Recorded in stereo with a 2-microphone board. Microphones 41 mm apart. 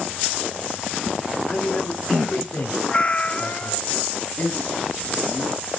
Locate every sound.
1.5 s a man speaking: 55° left (ahead or behind), 2 m
2.9 s a cat meowing: 25° left (ahead or behind), 0.5 m
4.4 s a man speaking: 50° left (ahead or behind), 1.3 m